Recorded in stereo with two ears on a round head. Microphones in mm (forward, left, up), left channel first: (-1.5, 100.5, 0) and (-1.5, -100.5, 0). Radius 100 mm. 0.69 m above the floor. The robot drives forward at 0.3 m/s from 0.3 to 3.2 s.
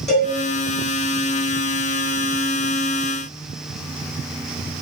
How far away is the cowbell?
About 2.5 m.